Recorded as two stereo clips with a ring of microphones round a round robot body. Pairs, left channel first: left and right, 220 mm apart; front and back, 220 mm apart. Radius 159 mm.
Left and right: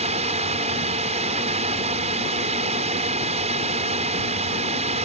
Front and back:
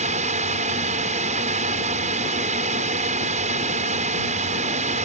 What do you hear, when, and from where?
0.0 s a drone: 135° right